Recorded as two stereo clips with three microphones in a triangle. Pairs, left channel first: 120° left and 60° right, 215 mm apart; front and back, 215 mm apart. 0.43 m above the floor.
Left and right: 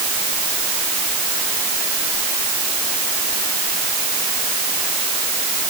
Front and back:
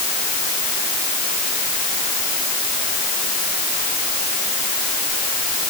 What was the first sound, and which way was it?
Only background noise.